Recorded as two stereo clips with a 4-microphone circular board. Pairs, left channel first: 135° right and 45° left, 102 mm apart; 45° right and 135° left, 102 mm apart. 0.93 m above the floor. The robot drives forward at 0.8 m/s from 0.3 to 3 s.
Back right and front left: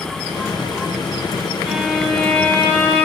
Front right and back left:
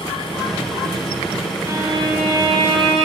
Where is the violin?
125° left, 1.0 m; by 3.1 s 160° left, 1.7 m.